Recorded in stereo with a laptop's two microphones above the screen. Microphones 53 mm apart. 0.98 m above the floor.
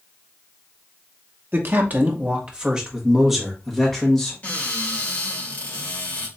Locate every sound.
1.5 s a man speaking: 45° right (ahead or behind), 1.0 m; by 4.3 s 5° left (ahead or behind), 1.8 m
4.4 s a cupboard door: 30° left (ahead or behind), 1.9 m